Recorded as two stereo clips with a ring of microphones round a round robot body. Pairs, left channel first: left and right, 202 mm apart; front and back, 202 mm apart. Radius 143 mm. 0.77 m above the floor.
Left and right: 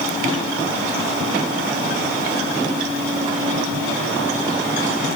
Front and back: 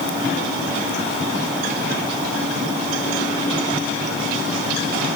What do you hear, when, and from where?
Only background noise.